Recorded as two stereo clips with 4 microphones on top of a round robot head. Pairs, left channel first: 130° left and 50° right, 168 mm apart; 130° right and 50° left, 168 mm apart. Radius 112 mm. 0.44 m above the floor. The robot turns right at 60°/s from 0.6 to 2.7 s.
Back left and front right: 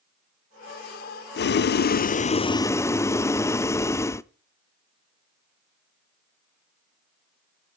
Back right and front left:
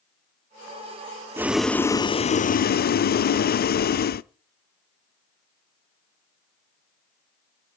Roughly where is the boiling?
Behind left.